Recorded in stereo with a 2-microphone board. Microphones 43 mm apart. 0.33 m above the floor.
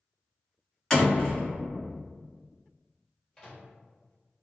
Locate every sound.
0.9 s a door slam: 10° left (ahead or behind), 1.2 m
3.4 s a microwave: 15° left (ahead or behind), 0.9 m